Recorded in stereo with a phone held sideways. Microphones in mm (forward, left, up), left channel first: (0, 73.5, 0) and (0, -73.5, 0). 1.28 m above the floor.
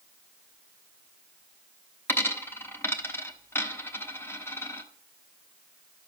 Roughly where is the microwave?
I don't hear a microwave.